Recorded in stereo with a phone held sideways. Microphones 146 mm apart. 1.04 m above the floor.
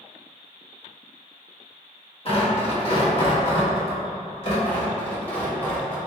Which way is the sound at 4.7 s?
15° left (ahead or behind).